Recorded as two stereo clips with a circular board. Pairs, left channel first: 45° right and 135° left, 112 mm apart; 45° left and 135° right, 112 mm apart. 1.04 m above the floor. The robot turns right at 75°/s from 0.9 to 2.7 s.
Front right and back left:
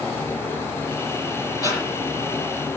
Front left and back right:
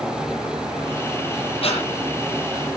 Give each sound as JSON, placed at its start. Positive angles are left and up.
{"t": 1.6, "sound": "breathing", "azimuth_deg": 10, "distance_m": 9.0}